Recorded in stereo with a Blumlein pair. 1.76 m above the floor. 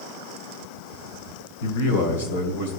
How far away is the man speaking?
About 2.5 m.